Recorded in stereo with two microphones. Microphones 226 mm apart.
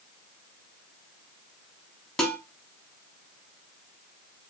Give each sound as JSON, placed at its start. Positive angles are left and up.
{"t": 2.2, "sound": "dishes clattering", "side_deg": 0, "distance_m": 0.9}